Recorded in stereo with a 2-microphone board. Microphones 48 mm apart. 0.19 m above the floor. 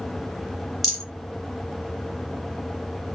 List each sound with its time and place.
0.8 s a rattle: centre (ahead or behind), 3 m